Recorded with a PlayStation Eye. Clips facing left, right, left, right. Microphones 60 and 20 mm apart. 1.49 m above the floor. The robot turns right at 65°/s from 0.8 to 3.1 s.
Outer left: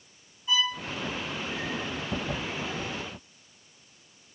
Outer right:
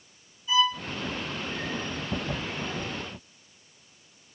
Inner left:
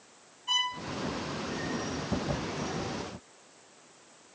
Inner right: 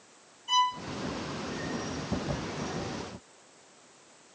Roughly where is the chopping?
No chopping in this recording.